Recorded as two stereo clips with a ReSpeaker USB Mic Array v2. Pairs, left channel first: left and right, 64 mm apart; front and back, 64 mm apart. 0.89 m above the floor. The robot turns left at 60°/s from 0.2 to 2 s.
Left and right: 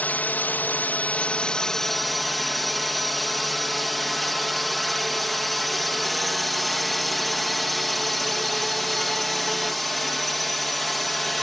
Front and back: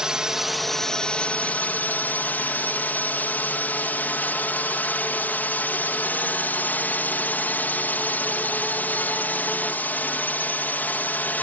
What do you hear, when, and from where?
0.0 s a drone: 110° left; by 11.4 s 5° left